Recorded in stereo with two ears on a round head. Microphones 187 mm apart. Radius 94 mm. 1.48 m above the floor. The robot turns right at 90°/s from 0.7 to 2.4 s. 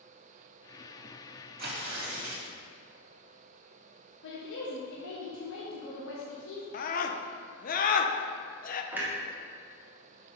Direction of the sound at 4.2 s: 70° left (ahead or behind).